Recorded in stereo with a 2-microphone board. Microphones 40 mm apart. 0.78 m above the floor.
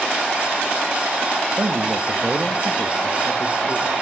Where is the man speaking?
55° right (ahead or behind), 0.9 m; by 3.9 s 30° left (ahead or behind), 1.7 m.